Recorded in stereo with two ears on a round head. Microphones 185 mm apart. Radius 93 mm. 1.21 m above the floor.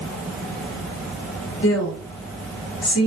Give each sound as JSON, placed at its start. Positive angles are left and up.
{"t": 1.6, "sound": "a woman speaking", "side_deg": 65, "distance_m": 0.9}